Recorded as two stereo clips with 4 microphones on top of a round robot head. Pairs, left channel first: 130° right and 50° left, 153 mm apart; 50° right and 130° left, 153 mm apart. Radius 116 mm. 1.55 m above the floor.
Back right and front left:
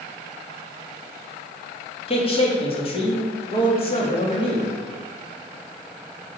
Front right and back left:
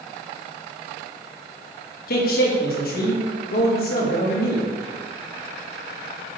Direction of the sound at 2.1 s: 75° right.